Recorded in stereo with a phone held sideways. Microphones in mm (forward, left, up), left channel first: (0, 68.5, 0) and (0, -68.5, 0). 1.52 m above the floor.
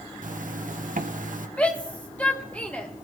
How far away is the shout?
About 2.5 m.